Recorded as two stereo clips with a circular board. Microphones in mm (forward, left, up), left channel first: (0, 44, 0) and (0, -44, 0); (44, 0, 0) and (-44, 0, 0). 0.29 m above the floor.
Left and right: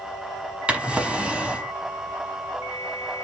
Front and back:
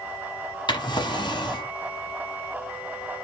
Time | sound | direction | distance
0.7 | a drawer | 15° right | 0.9 m